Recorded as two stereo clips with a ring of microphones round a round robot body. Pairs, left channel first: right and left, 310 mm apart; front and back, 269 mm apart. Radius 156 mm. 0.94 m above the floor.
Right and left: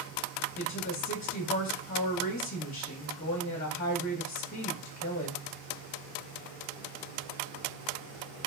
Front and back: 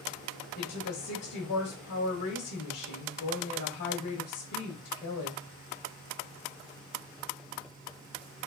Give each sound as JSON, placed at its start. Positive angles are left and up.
{"t": 0.6, "sound": "a woman speaking", "azimuth_deg": -30, "distance_m": 0.9}